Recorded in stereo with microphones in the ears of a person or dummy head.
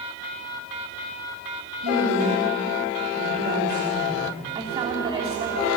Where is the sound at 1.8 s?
55° right (ahead or behind), 4 m.